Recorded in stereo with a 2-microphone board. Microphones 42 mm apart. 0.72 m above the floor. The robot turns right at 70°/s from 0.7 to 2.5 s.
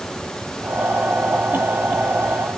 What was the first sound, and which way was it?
Only background noise.